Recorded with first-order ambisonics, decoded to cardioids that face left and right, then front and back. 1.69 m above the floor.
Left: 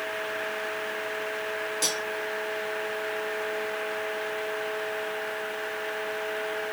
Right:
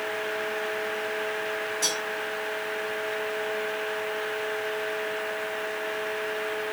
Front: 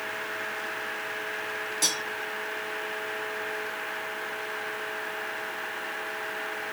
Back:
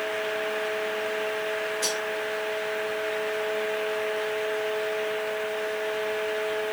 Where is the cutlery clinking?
35° left, 2.5 m.